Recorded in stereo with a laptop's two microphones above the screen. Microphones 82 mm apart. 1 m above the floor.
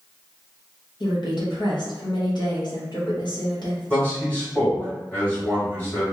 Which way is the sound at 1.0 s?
65° left (ahead or behind).